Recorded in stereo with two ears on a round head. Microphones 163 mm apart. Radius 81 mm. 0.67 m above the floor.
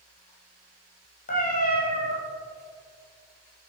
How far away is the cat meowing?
About 2.5 m.